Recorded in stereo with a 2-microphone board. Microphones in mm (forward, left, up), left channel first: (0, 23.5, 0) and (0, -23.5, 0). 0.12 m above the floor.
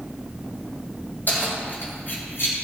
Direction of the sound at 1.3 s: 45° left (ahead or behind).